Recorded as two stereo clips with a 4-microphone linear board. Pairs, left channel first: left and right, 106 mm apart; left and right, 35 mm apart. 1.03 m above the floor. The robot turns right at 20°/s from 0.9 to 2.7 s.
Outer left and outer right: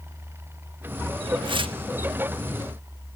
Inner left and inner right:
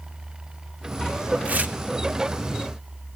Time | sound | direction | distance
1.4 | tearing paper | 50° right (ahead or behind) | 0.8 m